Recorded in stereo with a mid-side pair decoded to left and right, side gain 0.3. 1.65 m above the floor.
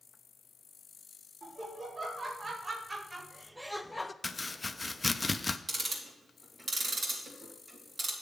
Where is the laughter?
55° right, 2 m; by 4.1 s 25° left, 0.5 m.